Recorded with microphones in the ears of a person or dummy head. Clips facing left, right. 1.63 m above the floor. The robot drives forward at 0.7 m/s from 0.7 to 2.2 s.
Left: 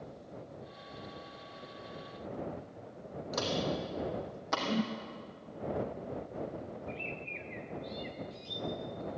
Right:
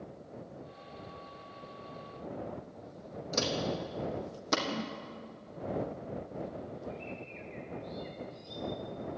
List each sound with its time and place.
3.3 s footsteps: 40° right (ahead or behind), 4 m; by 4.6 s 45° right (ahead or behind), 4 m
4.7 s a whoosh: 55° left (ahead or behind), 0.5 m
6.9 s a bird: 35° left (ahead or behind), 2 m